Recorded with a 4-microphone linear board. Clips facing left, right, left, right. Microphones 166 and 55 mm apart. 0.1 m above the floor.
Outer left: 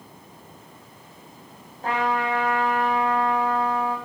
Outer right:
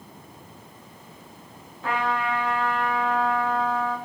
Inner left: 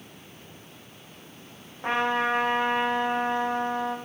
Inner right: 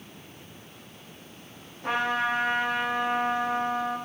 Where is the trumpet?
40° left (ahead or behind), 5.5 m.